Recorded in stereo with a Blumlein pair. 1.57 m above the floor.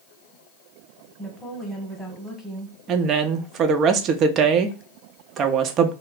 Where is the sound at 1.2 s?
5° left, 1.2 m.